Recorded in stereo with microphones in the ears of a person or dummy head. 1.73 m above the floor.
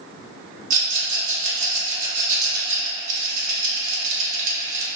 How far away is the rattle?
About 1.0 m.